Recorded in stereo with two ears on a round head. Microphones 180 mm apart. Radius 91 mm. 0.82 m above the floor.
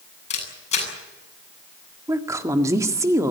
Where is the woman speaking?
15° right (ahead or behind), 1.8 m.